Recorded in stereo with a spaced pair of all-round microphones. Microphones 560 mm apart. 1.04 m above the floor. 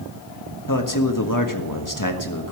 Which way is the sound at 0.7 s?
35° left (ahead or behind).